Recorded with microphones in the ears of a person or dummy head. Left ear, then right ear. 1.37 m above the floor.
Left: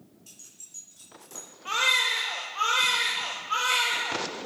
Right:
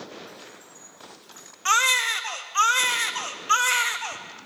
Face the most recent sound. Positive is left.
turn(degrees=-50)  # may be behind; listen again after turning